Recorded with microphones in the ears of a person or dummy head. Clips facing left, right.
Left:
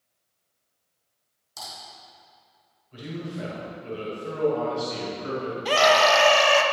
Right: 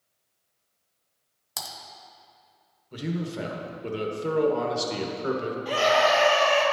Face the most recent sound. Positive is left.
turn(degrees=75)  # may be behind; listen again after turning